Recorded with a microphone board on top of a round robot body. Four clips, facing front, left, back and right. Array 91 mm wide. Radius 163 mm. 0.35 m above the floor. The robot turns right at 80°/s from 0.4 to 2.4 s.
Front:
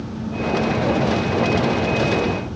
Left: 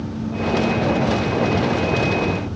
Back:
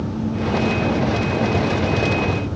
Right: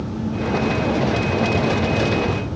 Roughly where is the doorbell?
No doorbell in this recording.